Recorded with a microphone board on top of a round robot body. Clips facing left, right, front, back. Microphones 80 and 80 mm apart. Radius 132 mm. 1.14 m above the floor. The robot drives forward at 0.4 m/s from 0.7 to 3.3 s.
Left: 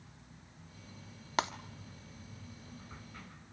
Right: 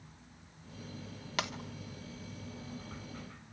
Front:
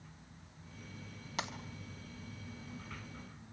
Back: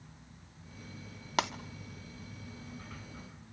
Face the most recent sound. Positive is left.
turn(degrees=165)